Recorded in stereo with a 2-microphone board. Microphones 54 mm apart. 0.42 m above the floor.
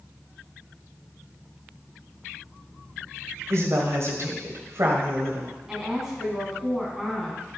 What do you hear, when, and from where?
3.5 s a woman speaking: 60° right (ahead or behind), 1.6 m
5.7 s a woman speaking: 10° right (ahead or behind), 3 m